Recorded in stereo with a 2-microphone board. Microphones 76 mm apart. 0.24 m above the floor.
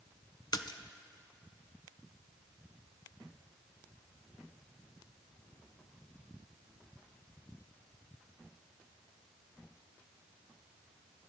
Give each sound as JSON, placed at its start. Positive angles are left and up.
{"t": 0.5, "sound": "a splash", "side_deg": 65, "distance_m": 0.5}